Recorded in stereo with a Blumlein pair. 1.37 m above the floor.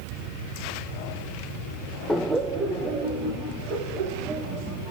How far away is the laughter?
About 0.5 m.